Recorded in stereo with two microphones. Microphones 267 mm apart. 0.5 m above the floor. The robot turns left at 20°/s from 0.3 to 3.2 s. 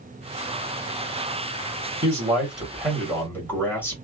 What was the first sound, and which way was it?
A man speaking, 20° right (ahead or behind).